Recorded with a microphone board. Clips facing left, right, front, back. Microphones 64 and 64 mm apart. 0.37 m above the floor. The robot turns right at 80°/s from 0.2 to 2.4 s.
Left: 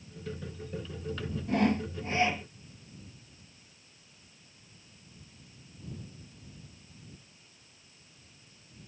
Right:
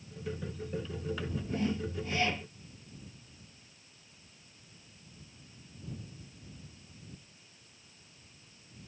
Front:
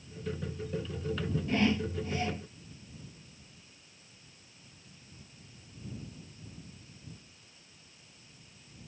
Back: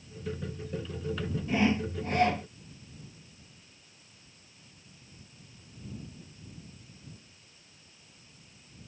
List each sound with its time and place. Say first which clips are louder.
1.5 s sawing: left 7 dB, back 2 dB; 100° left; by 2.5 s 170° left